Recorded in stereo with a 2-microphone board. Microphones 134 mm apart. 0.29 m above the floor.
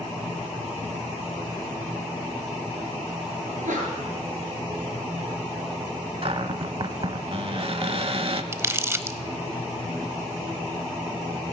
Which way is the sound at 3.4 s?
80° right.